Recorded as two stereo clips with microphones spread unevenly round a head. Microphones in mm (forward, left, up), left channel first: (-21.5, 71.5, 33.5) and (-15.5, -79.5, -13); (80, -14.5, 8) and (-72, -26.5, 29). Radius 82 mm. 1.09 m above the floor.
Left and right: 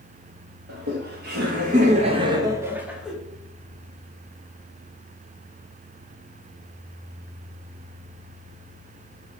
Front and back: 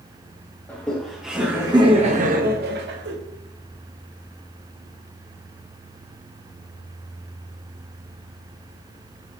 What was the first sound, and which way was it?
Laughter, 70° right.